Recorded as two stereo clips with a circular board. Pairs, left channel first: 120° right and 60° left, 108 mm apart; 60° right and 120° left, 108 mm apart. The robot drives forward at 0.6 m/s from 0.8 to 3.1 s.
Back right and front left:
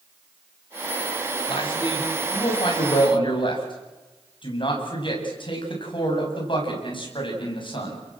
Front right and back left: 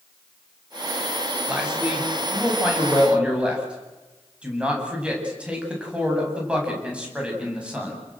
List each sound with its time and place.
1.5 s a man speaking: 160° right, 7.5 m